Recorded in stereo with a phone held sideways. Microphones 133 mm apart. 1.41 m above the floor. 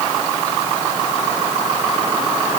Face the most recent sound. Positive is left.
No sound to turn to.